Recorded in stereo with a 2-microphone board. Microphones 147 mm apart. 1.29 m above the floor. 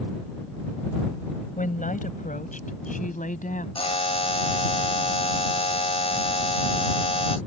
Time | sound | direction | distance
1.6 | a woman speaking | 70° left (ahead or behind) | ?
3.8 | a buzzer | 40° left (ahead or behind) | ?